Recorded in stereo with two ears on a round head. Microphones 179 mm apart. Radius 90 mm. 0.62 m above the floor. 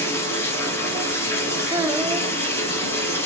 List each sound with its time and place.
0.0 s running water: 15° left (ahead or behind), 2.5 m
1.7 s a child speaking: 15° right (ahead or behind), 0.9 m